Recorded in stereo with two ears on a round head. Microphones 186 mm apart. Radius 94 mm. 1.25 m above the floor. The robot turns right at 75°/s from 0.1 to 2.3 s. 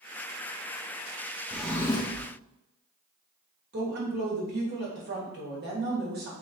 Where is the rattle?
I don't hear a rattle.